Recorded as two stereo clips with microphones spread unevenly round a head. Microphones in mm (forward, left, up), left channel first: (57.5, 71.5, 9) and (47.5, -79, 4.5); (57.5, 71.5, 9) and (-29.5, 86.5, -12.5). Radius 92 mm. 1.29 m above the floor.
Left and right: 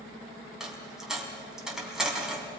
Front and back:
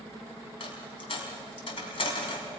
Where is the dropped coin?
5° right, 4.5 m.